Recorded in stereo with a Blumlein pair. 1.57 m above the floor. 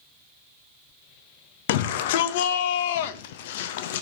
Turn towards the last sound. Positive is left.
turn(degrees=50)